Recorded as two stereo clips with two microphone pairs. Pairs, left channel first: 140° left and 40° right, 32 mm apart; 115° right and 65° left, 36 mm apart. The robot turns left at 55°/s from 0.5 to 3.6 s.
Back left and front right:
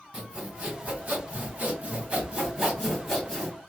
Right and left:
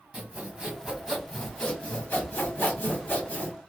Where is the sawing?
15° left, 2 m; by 3.5 s 150° right, 2 m.